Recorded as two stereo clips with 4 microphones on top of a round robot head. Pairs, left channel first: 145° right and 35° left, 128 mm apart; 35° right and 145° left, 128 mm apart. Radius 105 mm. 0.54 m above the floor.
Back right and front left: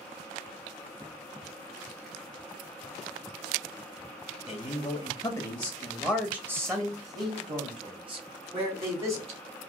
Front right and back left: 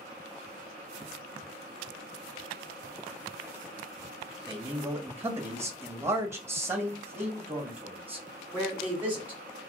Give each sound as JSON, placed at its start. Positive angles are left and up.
{"t": 4.5, "sound": "a man speaking", "azimuth_deg": -140, "distance_m": 1.1}